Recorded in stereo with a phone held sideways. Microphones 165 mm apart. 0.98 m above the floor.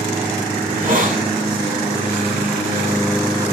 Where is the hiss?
55° right (ahead or behind), 6.5 m.